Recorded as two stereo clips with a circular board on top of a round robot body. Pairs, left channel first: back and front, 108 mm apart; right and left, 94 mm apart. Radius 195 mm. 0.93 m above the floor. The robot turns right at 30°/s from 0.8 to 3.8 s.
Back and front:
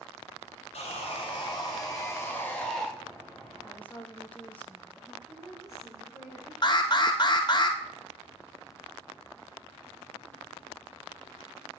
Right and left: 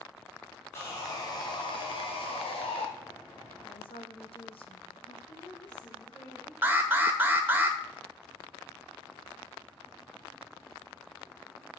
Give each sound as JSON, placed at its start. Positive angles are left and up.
{"t": 0.7, "sound": "sawing", "azimuth_deg": -155, "distance_m": 1.9}
{"t": 3.6, "sound": "a woman speaking", "azimuth_deg": -110, "distance_m": 1.2}
{"t": 5.3, "sound": "a woman speaking", "azimuth_deg": -55, "distance_m": 4.0}
{"t": 6.6, "sound": "an alarm", "azimuth_deg": 155, "distance_m": 1.4}